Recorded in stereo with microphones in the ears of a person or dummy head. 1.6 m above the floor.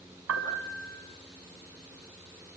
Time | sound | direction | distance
0.3 | a piano | 85° right | 5.5 m